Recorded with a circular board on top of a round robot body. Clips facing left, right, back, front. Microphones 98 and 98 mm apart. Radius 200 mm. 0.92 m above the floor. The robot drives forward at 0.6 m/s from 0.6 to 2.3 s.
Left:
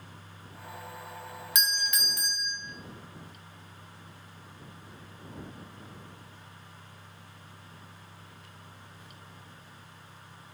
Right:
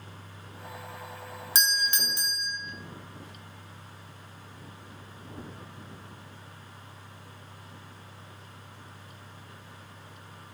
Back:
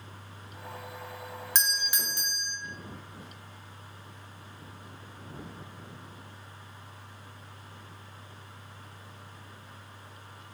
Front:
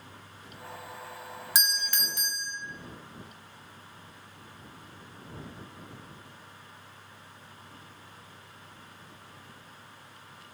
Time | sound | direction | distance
1.6 | a doorbell | 70° right | 0.7 m